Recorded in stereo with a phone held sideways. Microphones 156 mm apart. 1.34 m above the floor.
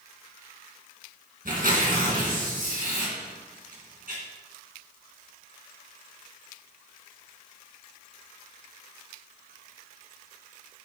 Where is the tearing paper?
65° right (ahead or behind), 2.5 m.